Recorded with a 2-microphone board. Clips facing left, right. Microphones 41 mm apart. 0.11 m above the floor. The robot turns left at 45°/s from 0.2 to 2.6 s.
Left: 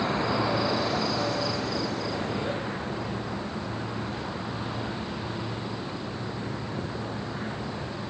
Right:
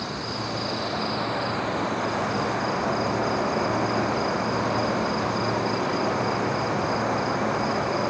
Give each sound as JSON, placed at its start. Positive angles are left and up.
{"t": 0.0, "sound": "an insect", "azimuth_deg": 30}